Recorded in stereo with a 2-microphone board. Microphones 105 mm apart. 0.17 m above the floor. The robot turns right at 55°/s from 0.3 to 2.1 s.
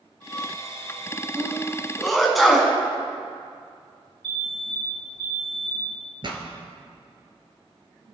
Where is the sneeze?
20° right (ahead or behind), 1.5 m; by 2.7 s centre (ahead or behind), 1.5 m.